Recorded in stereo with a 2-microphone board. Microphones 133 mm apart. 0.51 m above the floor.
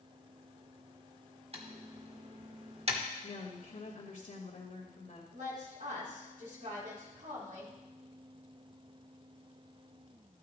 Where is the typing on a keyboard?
45° right (ahead or behind), 1.6 m.